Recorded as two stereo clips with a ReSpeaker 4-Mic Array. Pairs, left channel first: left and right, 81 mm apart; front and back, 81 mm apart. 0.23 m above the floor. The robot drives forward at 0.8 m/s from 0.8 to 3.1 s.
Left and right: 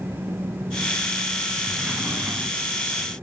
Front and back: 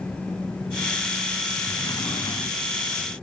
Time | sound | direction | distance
1.7 | a sliding door | 15° right | 1.8 m